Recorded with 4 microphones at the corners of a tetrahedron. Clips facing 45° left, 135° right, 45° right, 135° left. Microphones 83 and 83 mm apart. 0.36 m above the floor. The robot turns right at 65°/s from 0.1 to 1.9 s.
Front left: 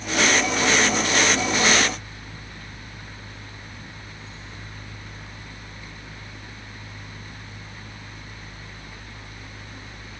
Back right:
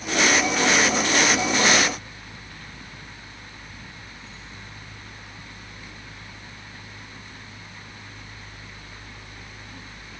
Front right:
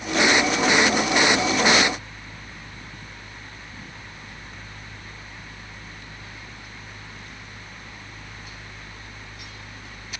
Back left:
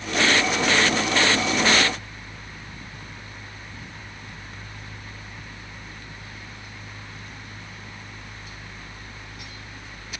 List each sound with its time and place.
Only background noise.